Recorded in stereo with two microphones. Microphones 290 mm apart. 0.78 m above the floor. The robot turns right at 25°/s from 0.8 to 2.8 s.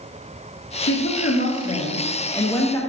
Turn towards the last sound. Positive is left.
turn(degrees=170)